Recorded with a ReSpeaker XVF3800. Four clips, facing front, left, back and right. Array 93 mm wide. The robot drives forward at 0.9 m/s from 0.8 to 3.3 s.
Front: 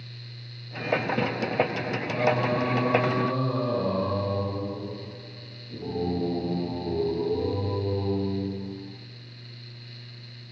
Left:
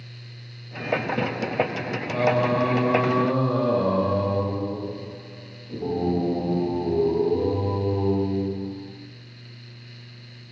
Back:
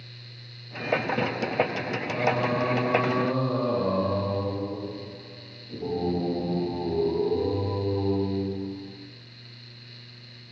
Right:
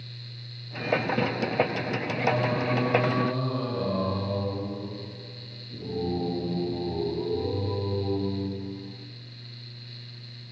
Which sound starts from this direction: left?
Singing, at 2.1 s.